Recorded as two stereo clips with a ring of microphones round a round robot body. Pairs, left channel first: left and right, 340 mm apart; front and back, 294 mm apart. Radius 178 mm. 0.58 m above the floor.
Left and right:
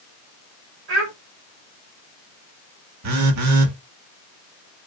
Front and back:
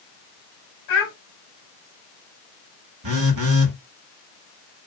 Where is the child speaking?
35° right, 3 m.